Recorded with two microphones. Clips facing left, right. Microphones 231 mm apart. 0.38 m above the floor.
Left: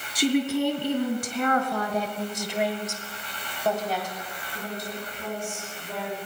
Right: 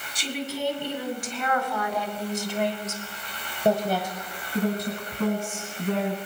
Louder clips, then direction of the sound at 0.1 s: Left 9 dB; 65° left (ahead or behind).